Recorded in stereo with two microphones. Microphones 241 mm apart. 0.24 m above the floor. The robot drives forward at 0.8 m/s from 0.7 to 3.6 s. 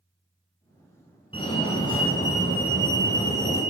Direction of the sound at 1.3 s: 20° left (ahead or behind).